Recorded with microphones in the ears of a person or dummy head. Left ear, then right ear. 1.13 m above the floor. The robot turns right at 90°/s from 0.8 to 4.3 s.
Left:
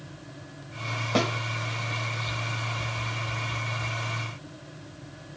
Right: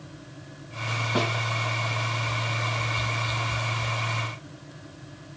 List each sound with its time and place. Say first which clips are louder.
1.1 s a snare drum: left 2 dB; 70° left (ahead or behind), 2 m; by 1.3 s 65° left (ahead or behind), 2 m